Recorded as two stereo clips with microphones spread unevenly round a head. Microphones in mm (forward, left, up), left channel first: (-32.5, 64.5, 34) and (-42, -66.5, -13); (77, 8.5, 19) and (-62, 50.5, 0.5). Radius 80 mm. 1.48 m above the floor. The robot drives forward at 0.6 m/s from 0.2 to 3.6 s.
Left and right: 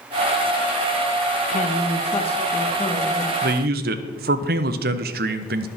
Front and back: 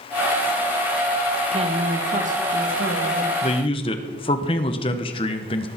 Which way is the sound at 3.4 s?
70° right.